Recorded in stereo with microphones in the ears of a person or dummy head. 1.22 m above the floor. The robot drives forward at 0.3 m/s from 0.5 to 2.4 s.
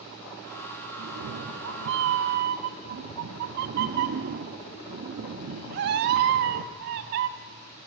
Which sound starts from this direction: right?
A cat meowing, at 1.0 s.